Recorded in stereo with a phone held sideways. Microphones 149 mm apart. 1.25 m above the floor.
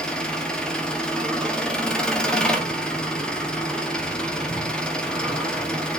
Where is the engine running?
5° left (ahead or behind), 0.8 m.